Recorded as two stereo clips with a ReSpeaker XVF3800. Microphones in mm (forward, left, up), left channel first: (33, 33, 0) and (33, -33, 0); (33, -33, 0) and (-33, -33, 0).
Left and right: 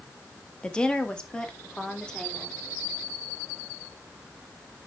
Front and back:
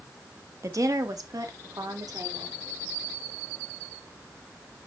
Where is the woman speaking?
160° left, 1.0 m; by 2.5 s 165° left, 2.5 m.